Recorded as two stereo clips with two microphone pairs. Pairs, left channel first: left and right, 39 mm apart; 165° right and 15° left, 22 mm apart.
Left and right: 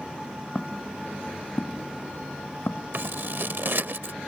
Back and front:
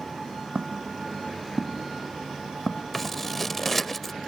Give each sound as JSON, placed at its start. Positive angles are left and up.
{"t": 0.6, "sound": "footsteps", "azimuth_deg": 40}
{"t": 2.9, "sound": "scissors", "azimuth_deg": -80}